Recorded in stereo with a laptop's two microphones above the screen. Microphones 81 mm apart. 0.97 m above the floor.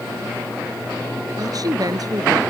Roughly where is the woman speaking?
Right.